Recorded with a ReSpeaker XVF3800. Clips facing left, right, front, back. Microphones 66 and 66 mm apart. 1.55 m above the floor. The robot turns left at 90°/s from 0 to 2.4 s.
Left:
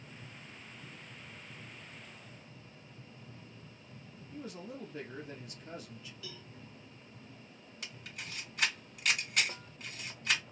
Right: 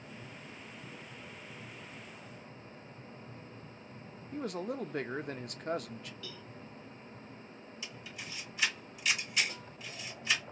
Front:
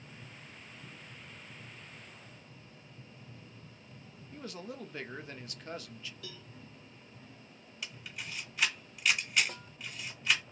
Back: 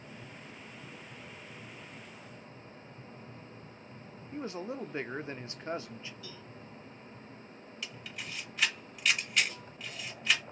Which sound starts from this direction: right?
A man speaking, at 4.3 s.